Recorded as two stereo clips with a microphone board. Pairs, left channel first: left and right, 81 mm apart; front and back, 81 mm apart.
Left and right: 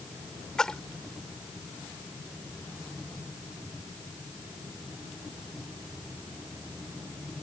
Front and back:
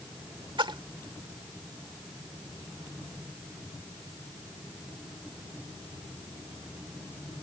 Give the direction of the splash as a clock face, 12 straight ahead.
6 o'clock.